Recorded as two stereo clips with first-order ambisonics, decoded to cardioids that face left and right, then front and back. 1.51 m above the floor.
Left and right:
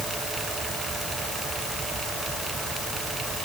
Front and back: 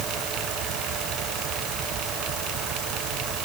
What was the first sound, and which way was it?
Only background noise.